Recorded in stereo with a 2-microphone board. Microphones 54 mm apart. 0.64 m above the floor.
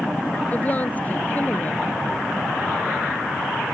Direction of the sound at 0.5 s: 30° left (ahead or behind).